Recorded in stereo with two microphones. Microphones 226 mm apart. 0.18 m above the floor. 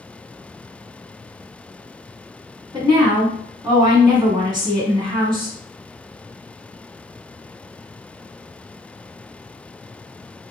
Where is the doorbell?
I don't hear a doorbell.